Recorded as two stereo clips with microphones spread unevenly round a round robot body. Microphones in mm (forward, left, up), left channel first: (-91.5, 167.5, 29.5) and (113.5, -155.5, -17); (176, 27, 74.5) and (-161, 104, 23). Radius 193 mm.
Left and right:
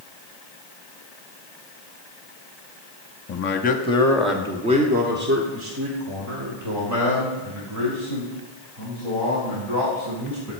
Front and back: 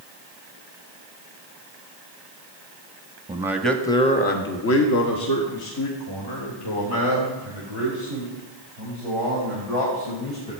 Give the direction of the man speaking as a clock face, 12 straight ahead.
8 o'clock.